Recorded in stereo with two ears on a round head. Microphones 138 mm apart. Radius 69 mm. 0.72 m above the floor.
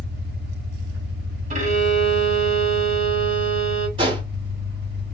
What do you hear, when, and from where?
0.0 s an engine running: 65° right (ahead or behind), 4.5 m
1.5 s a violin: 50° right (ahead or behind), 2 m
4.0 s a gunshot: 35° right (ahead or behind), 3 m